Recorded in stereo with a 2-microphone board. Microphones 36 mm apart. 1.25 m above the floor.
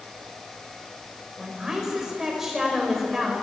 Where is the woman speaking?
15° right (ahead or behind), 5.5 m; by 3.3 s 5° right (ahead or behind), 5.5 m.